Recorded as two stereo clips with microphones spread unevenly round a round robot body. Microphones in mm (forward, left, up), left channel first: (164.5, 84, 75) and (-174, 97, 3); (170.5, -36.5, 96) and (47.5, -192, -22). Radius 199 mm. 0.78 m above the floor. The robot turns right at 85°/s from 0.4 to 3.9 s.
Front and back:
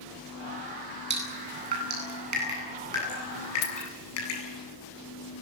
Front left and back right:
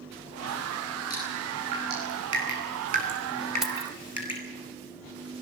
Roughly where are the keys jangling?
Ahead right.